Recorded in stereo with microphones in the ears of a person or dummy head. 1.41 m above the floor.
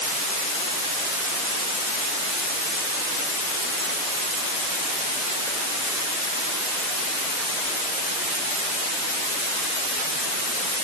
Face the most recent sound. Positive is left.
No sound to turn to.